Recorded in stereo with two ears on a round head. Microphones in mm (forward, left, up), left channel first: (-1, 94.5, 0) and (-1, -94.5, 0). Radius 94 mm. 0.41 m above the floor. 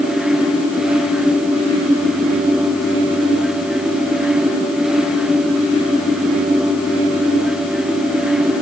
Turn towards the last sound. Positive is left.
No sound to turn to.